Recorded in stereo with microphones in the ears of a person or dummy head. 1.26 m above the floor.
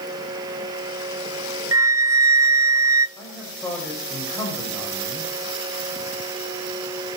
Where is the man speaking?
15° left (ahead or behind), 7 m.